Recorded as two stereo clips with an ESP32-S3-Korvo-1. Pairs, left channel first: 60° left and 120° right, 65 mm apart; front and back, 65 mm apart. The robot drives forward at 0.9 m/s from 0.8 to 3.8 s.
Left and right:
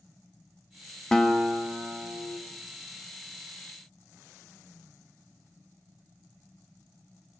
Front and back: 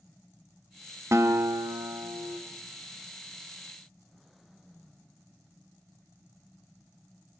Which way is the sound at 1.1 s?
140° left.